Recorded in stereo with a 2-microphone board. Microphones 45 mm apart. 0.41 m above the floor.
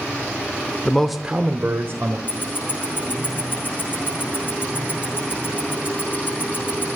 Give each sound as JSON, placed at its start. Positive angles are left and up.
{"t": 0.8, "sound": "a man speaking", "side_deg": 20, "distance_m": 0.8}
{"t": 2.3, "sound": "ticking", "side_deg": 45, "distance_m": 7.5}